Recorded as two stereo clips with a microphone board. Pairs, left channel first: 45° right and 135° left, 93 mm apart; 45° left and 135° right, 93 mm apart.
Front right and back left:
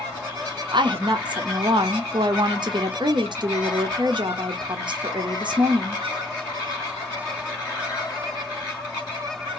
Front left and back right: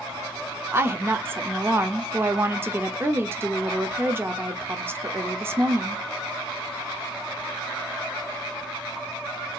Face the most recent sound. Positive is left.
turn(degrees=160)